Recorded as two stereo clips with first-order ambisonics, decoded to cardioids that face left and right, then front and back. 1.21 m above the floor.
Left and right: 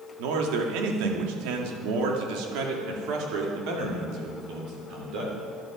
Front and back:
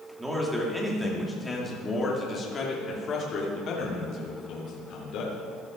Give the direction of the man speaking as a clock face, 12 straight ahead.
3 o'clock.